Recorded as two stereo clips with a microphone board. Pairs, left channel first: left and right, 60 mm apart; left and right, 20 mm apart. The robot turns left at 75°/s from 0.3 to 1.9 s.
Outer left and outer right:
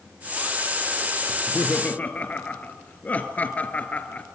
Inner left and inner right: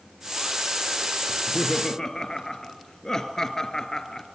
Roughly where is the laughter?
Left.